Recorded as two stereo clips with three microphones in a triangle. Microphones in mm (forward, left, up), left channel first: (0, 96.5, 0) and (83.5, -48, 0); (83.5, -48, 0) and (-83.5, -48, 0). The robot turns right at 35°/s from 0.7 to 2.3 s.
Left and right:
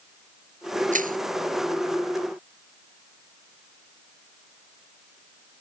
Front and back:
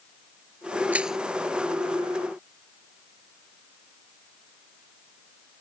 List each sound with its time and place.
0.9 s crushing: 100° right; by 1.2 s 90° right